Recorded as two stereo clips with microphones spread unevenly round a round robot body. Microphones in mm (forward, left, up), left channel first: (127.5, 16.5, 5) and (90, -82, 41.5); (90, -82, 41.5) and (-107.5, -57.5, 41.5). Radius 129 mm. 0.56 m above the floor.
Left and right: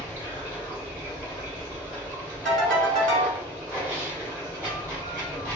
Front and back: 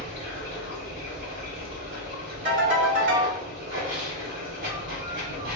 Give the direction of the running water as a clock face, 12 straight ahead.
7 o'clock.